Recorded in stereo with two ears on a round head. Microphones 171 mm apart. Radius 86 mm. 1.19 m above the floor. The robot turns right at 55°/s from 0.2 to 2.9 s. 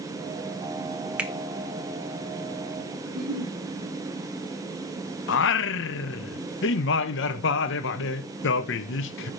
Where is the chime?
No chime in this recording.